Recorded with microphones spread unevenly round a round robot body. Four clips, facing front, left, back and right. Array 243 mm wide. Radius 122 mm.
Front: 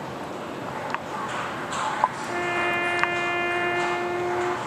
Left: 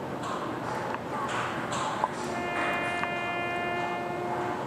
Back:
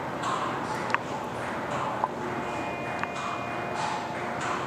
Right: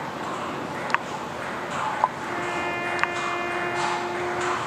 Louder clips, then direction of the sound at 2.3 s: Right 2 dB, front 5 dB; 15° right.